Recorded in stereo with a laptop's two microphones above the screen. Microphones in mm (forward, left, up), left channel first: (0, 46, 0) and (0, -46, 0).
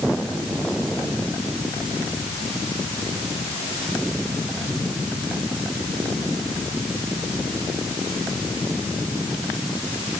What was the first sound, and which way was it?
Only background noise.